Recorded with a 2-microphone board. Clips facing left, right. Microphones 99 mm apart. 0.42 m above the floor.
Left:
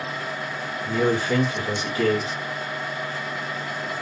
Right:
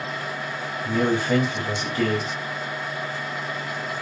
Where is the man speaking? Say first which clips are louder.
Even; 45° right (ahead or behind), 1.8 m.